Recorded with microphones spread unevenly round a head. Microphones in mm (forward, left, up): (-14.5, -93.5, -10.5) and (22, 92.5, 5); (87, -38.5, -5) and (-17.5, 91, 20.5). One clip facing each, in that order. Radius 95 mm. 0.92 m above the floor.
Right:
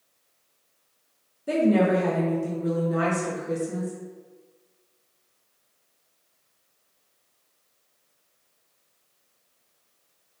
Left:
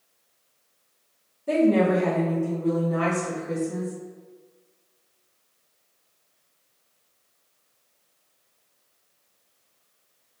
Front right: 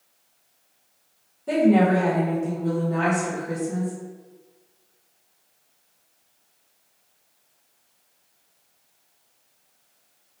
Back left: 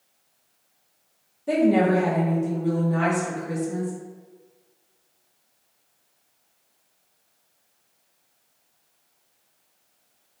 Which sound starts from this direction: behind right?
A woman speaking, at 1.5 s.